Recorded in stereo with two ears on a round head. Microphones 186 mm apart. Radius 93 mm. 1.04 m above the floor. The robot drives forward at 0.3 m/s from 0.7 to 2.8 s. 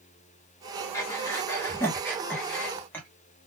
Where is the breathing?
15° left (ahead or behind), 0.7 m; by 3.1 s 10° left (ahead or behind), 1.1 m.